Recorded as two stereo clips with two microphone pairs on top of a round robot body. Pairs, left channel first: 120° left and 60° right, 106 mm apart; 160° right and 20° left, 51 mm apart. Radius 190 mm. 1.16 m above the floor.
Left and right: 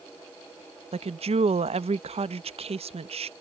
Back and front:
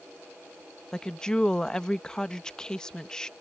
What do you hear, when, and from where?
0.9 s a woman speaking: 85° right